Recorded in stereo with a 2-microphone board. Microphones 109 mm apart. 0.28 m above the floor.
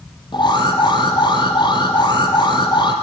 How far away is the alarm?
About 5 m.